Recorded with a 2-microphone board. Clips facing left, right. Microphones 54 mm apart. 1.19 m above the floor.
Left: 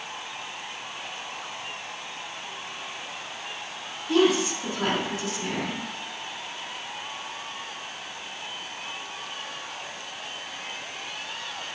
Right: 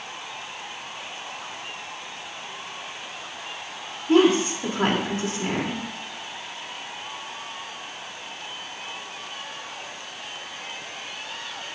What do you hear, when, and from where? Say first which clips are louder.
4.1 s a woman speaking: right 4 dB; 40° right (ahead or behind), 3 m